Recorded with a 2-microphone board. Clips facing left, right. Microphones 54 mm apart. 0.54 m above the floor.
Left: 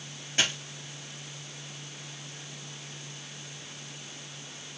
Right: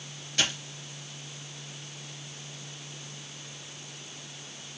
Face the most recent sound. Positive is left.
turn(degrees=25)  # may be behind; listen again after turning